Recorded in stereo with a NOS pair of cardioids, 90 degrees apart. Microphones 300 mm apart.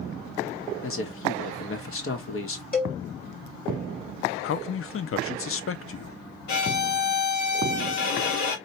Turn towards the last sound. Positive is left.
turn(degrees=70)